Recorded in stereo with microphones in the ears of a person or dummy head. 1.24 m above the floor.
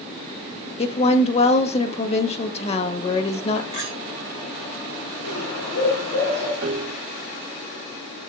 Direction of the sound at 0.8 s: 40° left (ahead or behind).